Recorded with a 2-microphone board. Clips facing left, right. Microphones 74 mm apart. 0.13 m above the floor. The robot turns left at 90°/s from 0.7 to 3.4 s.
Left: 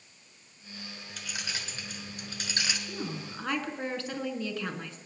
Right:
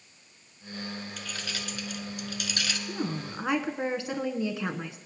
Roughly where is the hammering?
I don't hear hammering.